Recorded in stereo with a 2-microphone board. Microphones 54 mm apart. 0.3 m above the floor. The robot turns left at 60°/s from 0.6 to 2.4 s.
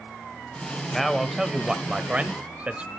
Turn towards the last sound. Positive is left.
turn(degrees=-25)  # may be behind; listen again after turning